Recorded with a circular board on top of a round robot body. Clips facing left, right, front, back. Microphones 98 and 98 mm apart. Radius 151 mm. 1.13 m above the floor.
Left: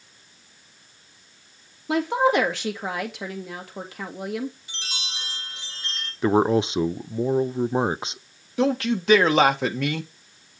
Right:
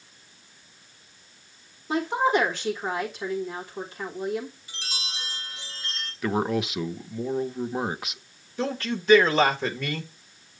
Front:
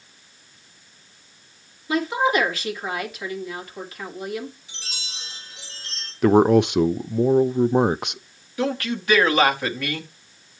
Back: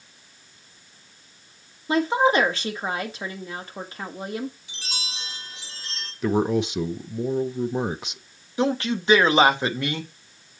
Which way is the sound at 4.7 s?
160° left.